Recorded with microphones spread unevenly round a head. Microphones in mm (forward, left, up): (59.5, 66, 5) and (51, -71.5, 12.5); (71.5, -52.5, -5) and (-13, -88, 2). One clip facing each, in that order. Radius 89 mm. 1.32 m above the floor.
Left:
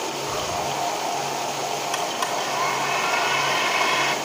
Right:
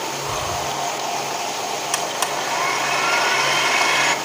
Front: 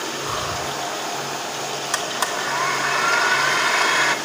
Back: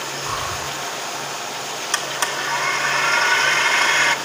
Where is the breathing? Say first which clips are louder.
Right 1 dB, even; 65° right, 2 m.